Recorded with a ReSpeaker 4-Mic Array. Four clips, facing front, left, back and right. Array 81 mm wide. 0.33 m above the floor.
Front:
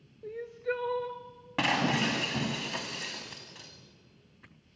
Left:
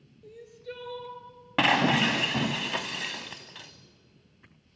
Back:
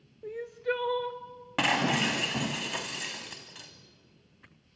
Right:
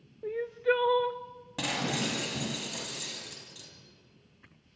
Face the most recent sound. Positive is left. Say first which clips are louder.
# left 9 dB, back 1 dB
turn(degrees=95)